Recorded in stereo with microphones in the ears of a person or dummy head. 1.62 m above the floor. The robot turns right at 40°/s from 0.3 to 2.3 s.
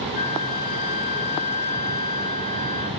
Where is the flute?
30° left, 1.8 m; by 2.9 s 110° left, 1.8 m.